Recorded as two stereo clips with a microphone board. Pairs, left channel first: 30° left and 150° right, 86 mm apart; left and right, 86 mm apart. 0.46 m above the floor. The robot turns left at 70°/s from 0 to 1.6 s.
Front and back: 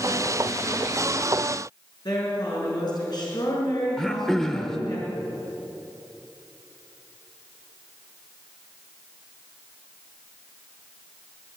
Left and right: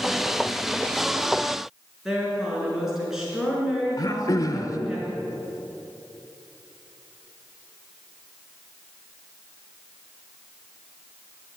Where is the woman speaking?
5° right, 5 m.